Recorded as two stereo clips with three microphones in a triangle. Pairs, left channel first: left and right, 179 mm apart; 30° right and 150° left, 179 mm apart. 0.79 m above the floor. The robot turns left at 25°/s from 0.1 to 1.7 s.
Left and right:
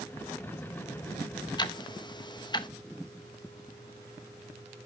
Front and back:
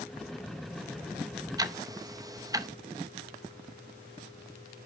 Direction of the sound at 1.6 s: 115° left.